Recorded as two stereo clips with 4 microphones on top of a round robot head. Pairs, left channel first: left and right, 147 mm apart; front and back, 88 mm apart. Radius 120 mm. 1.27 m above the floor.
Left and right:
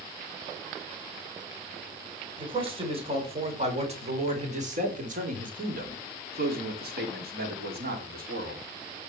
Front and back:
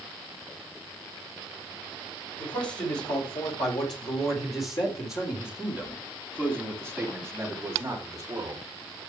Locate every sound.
2.4 s a man speaking: 35° right, 5.5 m; by 8.6 s 115° right, 3.5 m